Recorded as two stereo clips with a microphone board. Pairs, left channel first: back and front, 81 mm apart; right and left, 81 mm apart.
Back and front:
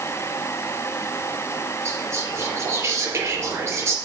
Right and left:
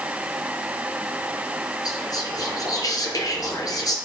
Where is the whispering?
55° right, 4 m.